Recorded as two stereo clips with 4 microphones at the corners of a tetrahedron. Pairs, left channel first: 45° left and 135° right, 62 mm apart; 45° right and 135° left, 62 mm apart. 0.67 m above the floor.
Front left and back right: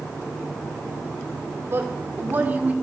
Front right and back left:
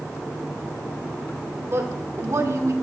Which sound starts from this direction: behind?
A woman speaking, at 1.7 s.